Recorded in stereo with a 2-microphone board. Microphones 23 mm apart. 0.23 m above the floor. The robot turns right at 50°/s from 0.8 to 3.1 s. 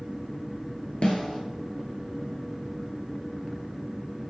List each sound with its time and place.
1.0 s a snare drum: 60° left (ahead or behind), 1.1 m; by 1.4 s 45° left (ahead or behind), 1.1 m